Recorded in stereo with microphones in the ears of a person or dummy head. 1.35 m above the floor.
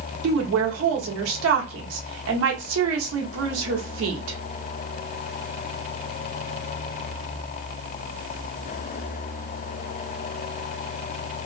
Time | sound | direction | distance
0.2 | a woman speaking | 85° right | 1.1 m